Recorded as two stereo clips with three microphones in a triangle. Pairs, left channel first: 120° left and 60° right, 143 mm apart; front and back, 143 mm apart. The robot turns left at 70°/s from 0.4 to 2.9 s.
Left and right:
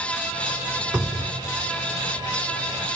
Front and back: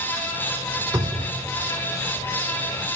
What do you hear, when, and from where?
0.9 s a cupboard door: 125° right, 2 m; by 1.4 s 160° right, 2 m